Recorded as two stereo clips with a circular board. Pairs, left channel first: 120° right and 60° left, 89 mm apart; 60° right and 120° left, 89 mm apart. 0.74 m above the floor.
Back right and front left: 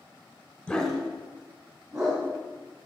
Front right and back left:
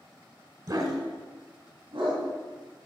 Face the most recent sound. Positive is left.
turn(degrees=115)